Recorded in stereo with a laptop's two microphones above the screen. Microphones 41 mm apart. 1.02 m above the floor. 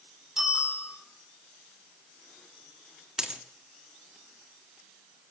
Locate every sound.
0.4 s a bicycle bell: 15° right (ahead or behind), 5.5 m
3.2 s a dropped coin: 15° right (ahead or behind), 0.8 m